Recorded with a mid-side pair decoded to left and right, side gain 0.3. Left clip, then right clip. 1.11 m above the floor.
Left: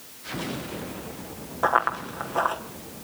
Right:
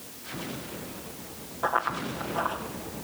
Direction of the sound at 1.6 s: 70° left.